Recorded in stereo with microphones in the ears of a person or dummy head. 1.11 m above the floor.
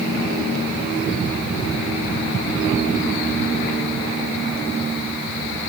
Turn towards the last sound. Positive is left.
No sound to turn to.